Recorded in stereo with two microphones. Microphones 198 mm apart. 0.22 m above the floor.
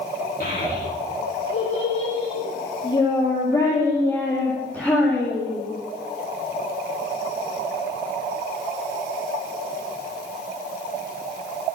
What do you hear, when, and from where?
0.4 s a child speaking: 50° left (ahead or behind), 8.5 m; by 5.6 s centre (ahead or behind), 10.5 m